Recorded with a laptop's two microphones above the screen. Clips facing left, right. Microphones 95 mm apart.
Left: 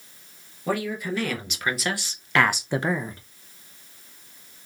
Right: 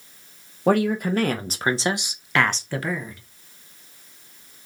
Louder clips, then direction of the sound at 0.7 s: Right 7 dB; 60° right (ahead or behind).